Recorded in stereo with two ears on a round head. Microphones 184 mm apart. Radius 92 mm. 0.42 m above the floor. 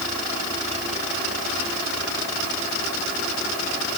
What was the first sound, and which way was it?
Only background noise.